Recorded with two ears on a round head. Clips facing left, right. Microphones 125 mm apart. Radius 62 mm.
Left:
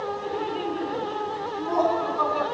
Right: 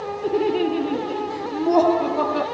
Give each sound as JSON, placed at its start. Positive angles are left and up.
{"t": 0.2, "sound": "laughter", "side_deg": -60, "distance_m": 1.4}